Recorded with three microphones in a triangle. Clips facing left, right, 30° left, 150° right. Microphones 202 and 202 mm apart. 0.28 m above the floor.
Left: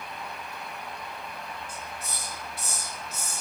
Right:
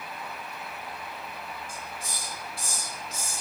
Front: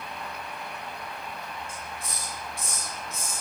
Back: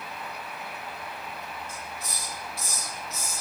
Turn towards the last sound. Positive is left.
turn(degrees=-30)